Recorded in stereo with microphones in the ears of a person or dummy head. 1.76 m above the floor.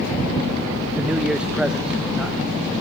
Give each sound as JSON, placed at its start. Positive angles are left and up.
{"t": 1.0, "sound": "a man speaking", "side_deg": -5, "distance_m": 0.7}